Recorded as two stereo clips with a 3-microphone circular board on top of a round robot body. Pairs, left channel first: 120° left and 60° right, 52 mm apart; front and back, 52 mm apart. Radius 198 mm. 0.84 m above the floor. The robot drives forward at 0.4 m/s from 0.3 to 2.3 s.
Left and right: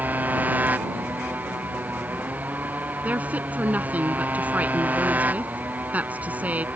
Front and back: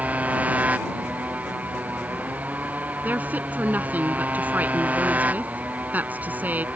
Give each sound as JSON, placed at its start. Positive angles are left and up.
{"t": 0.0, "sound": "a motorcycle", "azimuth_deg": -115}
{"t": 3.0, "sound": "a woman speaking", "azimuth_deg": -120}